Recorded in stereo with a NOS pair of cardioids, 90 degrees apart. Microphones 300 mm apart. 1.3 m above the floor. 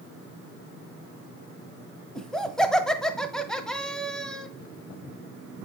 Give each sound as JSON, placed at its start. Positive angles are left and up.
{"t": 2.1, "sound": "laughter", "azimuth_deg": 0, "distance_m": 1.0}